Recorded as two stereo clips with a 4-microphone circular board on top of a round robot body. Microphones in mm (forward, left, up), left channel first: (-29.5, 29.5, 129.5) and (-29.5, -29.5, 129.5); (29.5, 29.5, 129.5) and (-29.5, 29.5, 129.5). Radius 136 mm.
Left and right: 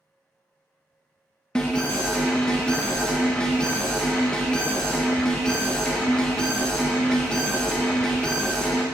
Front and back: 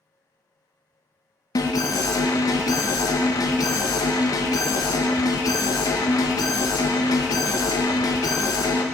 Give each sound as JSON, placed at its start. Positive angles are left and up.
{"t": 1.6, "sound": "an alarm", "azimuth_deg": 10, "distance_m": 0.6}